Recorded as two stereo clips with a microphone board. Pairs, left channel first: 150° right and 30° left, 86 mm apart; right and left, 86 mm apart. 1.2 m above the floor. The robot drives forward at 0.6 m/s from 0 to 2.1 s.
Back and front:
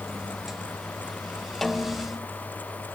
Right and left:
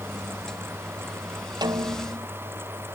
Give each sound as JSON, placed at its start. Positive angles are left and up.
{"t": 1.6, "sound": "a snare drum", "azimuth_deg": 120}